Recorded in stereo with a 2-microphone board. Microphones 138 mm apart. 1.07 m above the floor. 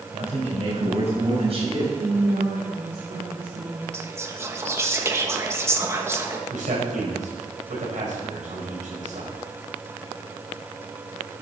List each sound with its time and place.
0.1 s a man speaking: 50° right (ahead or behind), 5.5 m; by 1.9 s 45° right (ahead or behind), 7 m
2.0 s a woman speaking: 70° right (ahead or behind), 2.5 m
3.9 s whispering: 20° right (ahead or behind), 1.6 m
6.5 s a man speaking: 65° right (ahead or behind), 5 m